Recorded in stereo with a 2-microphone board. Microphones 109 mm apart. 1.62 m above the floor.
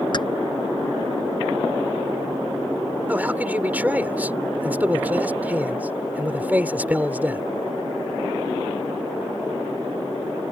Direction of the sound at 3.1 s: 15° right (ahead or behind).